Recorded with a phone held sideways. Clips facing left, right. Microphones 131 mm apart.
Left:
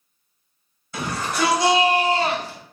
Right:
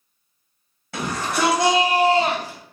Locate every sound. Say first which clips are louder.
0.9 s a shout: right 1 dB; 75° right (ahead or behind), 1.3 m; by 2.6 s 5° right (ahead or behind), 1.1 m